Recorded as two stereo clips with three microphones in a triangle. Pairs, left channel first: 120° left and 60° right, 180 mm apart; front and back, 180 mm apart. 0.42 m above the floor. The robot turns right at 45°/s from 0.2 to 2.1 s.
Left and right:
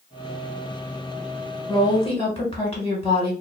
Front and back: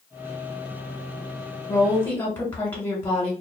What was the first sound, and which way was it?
A woman speaking, 55° left.